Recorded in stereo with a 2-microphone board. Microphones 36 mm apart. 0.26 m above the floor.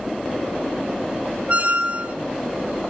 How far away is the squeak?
About 0.5 m.